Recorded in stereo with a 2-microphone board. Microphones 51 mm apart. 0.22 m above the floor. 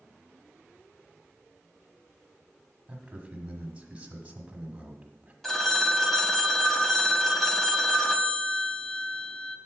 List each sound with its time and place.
2.9 s a man speaking: 20° right (ahead or behind), 1.2 m
5.4 s a phone ringing: 5° left (ahead or behind), 0.6 m